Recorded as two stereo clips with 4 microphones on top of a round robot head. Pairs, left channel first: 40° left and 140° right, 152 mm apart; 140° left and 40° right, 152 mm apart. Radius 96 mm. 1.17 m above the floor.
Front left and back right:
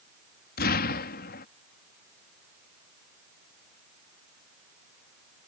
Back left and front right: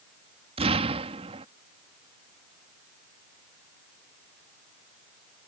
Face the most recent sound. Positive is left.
turn(degrees=15)